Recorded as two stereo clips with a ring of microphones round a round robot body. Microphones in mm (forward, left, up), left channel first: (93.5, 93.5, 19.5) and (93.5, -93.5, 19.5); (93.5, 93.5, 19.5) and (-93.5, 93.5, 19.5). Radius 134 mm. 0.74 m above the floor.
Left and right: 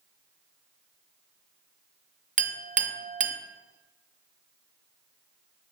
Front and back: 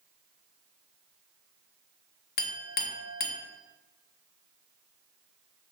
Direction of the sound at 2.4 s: 40° right.